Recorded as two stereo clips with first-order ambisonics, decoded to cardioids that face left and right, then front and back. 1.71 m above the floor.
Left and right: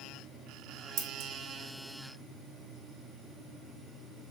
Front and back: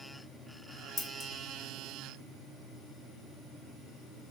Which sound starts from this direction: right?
Scissors, at 1.0 s.